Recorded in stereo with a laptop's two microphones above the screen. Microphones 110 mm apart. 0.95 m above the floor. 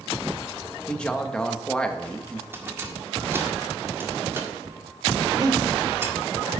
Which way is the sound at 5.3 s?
35° right (ahead or behind).